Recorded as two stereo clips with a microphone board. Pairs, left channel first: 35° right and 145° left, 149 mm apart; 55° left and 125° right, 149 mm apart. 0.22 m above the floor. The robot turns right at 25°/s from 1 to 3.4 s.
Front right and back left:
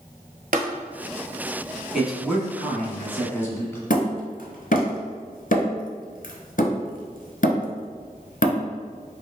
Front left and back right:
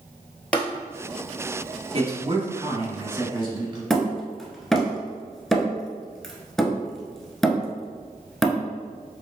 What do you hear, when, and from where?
0.5 s tapping: 135° left, 1.0 m
1.9 s a man speaking: 130° right, 1.2 m; by 3.8 s 95° right, 1.2 m
3.9 s hammering: 30° right, 0.9 m